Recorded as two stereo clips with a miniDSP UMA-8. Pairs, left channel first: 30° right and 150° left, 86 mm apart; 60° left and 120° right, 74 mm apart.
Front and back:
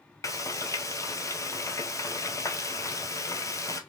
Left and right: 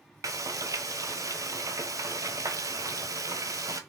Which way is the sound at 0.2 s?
80° right.